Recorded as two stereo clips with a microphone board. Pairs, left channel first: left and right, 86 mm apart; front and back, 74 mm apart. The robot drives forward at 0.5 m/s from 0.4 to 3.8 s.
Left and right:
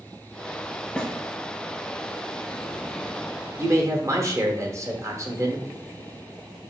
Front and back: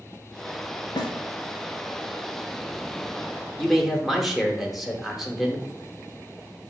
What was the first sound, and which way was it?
A snare drum, 10° left.